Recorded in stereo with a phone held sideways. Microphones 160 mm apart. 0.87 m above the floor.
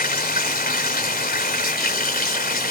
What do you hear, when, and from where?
0.0 s running water: 70° left (ahead or behind)